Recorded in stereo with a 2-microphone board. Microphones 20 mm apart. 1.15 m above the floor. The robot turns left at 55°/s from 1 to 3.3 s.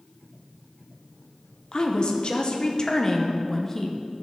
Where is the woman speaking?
110° left, 0.8 m; by 4.1 s 20° left, 0.8 m.